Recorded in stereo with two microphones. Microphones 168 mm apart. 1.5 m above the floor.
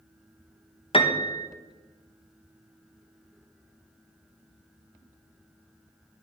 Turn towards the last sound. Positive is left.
turn(degrees=35)  # may be behind; listen again after turning